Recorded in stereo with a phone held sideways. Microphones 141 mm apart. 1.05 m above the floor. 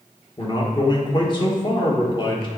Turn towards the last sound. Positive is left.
turn(degrees=35)  # may be behind; listen again after turning